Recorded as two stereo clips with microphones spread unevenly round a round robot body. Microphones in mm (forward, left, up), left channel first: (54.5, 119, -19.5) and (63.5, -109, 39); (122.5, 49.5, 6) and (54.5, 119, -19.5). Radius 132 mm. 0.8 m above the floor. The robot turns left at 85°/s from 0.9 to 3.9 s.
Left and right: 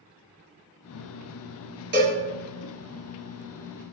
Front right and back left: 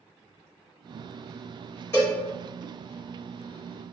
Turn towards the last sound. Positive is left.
turn(degrees=70)